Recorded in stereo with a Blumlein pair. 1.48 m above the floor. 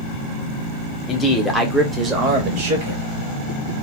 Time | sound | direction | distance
1.1 | a man speaking | 20° left | 0.9 m